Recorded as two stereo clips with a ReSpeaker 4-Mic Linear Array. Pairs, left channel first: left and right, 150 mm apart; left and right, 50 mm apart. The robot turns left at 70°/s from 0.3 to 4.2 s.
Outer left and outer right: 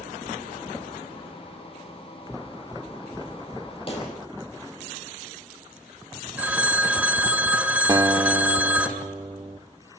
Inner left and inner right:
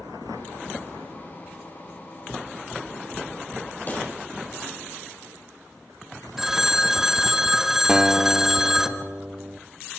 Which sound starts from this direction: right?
A guitar, at 7.9 s.